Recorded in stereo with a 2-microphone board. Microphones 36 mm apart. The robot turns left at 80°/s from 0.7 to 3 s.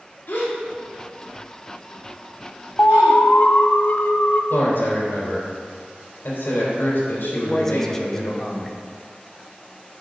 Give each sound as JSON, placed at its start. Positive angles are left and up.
{"t": 0.3, "sound": "a gasp", "side_deg": 75, "distance_m": 2.0}
{"t": 2.8, "sound": "an alarm", "side_deg": 65, "distance_m": 0.7}
{"t": 4.5, "sound": "a man speaking", "side_deg": 80, "distance_m": 3.5}
{"t": 7.3, "sound": "a man speaking", "side_deg": 10, "distance_m": 1.0}